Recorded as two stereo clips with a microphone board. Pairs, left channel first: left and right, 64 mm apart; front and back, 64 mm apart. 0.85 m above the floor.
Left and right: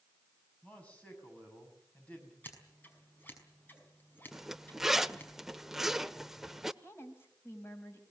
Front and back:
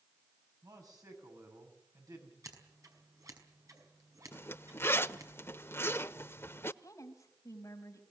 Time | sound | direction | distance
0.6 | a man speaking | 160° left | 7.5 m
2.4 | scissors | 150° left | 5 m
4.3 | a zipper | 10° right | 0.6 m
6.8 | a woman speaking | 40° left | 5 m